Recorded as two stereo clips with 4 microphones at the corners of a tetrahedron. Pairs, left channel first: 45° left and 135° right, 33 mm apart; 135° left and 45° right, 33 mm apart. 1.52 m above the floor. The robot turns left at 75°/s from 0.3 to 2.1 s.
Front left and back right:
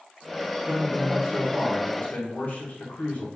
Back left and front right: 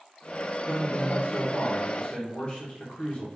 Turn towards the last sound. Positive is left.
turn(degrees=80)